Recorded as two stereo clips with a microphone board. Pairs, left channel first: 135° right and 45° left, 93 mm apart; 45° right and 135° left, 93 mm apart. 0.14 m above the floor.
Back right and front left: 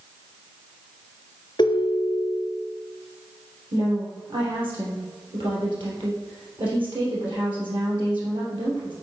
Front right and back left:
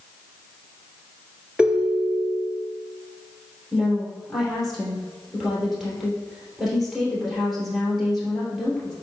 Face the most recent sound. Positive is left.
turn(degrees=45)